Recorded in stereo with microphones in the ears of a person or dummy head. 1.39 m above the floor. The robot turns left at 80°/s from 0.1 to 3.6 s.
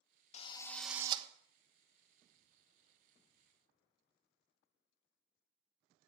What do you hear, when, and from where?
0.3 s a drill: 40° left, 1.1 m; by 1.3 s 30° right, 1.1 m